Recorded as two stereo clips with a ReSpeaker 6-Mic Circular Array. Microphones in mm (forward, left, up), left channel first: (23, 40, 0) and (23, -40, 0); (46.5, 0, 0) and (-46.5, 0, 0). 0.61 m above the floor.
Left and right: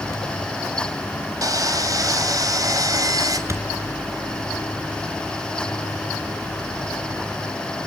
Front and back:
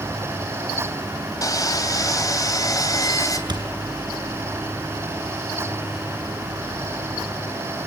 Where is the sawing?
50° right, 3 m.